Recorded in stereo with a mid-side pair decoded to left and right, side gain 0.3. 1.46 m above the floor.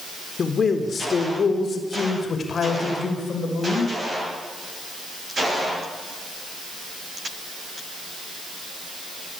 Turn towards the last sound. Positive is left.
turn(degrees=65)